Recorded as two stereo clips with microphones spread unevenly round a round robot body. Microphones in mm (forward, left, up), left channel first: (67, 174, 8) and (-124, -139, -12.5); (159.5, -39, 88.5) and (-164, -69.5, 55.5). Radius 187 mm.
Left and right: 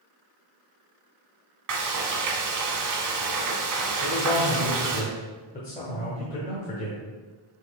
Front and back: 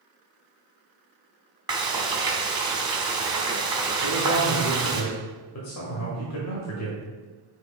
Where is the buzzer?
I don't hear a buzzer.